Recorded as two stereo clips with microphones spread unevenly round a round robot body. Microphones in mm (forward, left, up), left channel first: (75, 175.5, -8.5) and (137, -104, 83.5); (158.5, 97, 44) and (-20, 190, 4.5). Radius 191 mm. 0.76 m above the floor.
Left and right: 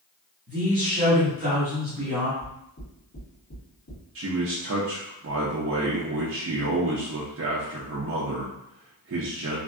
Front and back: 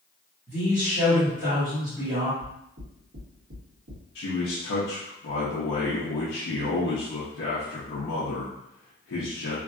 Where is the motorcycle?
I don't hear a motorcycle.